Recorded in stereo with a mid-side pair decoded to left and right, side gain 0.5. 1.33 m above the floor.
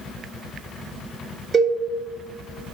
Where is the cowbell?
55° right, 1.2 m.